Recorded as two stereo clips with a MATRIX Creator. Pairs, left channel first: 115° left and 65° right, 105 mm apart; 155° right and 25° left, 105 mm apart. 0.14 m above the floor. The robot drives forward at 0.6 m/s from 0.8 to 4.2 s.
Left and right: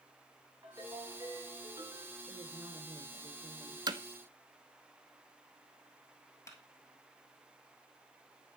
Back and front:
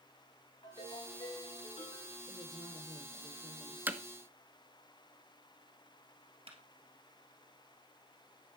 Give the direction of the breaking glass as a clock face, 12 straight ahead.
I don't hear breaking glass.